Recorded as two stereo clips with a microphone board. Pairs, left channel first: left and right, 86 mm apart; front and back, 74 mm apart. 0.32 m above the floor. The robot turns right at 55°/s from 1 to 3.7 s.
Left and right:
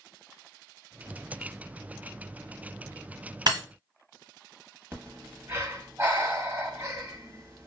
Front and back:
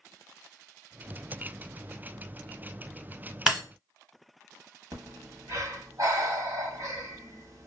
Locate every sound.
3.5 s breaking glass: 100° right, 1.2 m; by 3.6 s 95° right, 1.2 m
4.9 s breathing: 150° right, 0.8 m